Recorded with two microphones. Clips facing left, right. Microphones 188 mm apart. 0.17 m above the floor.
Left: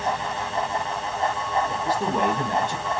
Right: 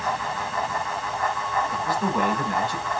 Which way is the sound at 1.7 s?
45° left (ahead or behind).